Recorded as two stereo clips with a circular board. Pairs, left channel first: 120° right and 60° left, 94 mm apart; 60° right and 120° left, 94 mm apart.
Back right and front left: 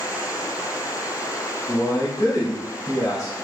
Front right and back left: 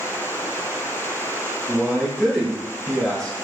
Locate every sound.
1.7 s a man speaking: 145° right, 0.9 m